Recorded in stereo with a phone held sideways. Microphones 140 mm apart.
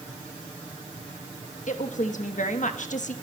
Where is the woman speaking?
60° left (ahead or behind), 1.3 m.